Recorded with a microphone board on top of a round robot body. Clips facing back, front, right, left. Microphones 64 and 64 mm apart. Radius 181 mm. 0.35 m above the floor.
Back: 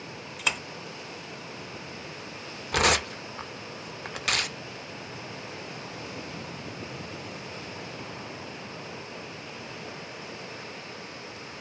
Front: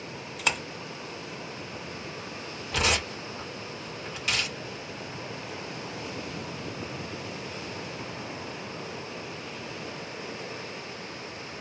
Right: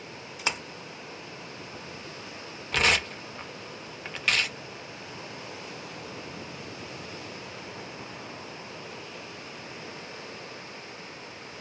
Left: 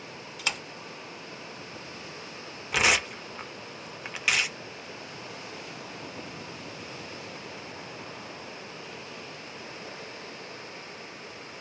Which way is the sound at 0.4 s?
95° right.